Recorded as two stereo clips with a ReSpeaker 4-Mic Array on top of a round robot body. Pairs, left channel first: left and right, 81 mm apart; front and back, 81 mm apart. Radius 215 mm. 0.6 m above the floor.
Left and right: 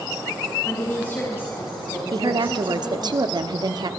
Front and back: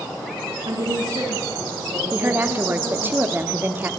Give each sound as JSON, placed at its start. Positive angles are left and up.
{"t": 0.7, "sound": "a woman speaking", "azimuth_deg": 150, "distance_m": 6.0}
{"t": 2.1, "sound": "a woman speaking", "azimuth_deg": -115, "distance_m": 1.8}